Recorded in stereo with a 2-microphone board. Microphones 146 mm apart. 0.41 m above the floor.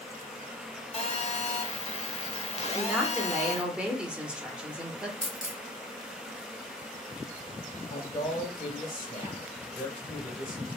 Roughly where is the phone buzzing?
Left.